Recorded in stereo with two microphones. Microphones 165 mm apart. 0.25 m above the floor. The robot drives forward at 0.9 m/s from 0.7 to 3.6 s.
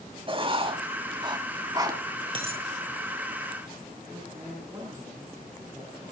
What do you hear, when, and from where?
0.3 s writing: 35° right (ahead or behind), 1.8 m; by 2.0 s 25° right (ahead or behind), 2.5 m
2.4 s a dropped coin: 35° right (ahead or behind), 2.5 m; by 2.6 s 40° right (ahead or behind), 2 m
4.1 s a man speaking: 20° right (ahead or behind), 8.5 m